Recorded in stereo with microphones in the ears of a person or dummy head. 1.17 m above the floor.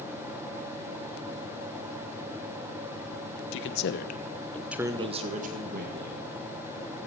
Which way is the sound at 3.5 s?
65° left (ahead or behind).